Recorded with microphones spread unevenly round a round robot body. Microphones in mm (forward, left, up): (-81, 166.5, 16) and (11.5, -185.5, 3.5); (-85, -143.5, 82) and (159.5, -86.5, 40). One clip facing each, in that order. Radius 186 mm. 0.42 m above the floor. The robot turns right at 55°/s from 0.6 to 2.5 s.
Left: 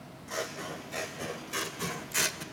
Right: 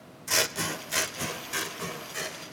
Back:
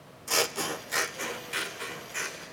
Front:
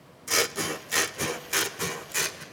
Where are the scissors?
50° right, 0.7 m; by 2.4 s 55° left, 0.7 m.